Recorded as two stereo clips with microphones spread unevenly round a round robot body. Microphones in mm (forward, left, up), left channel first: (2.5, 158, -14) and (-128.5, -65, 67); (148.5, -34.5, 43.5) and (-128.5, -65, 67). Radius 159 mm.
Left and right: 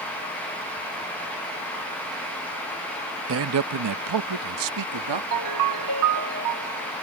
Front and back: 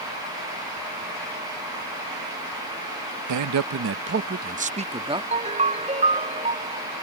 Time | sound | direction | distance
3.3 | a man speaking | 170° right | ?
5.3 | a ringtone | 105° right | ?